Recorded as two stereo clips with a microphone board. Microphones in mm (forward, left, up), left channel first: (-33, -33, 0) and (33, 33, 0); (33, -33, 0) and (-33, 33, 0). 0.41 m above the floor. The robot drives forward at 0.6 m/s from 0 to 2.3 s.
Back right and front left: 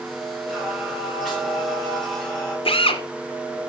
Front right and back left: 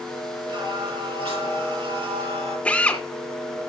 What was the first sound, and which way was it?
Singing, 130° left.